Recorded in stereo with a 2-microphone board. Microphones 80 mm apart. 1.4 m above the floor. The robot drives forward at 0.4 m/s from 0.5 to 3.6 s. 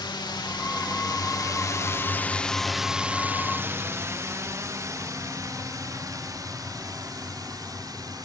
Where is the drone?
70° left (ahead or behind); by 8.2 s 50° right (ahead or behind).